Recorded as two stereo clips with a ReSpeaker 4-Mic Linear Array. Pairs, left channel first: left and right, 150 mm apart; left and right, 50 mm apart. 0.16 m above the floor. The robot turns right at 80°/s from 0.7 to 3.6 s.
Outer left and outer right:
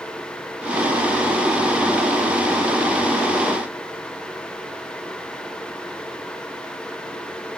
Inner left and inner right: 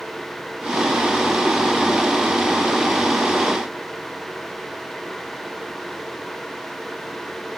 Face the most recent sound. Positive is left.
No sound to turn to.